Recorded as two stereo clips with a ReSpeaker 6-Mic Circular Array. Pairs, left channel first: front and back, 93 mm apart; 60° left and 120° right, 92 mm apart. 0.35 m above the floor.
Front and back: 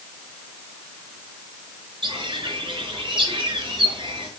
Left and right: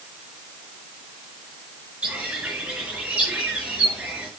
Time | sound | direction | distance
2.0 | a bird | 160° left | 5 m